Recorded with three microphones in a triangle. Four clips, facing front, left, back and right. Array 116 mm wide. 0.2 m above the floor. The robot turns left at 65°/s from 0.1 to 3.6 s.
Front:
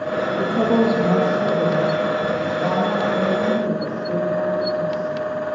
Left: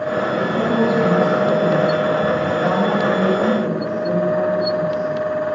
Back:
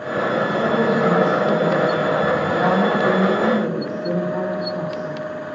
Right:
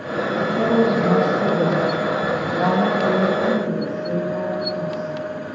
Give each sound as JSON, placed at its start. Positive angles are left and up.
{"t": 0.4, "sound": "a woman speaking", "azimuth_deg": 10, "distance_m": 6.0}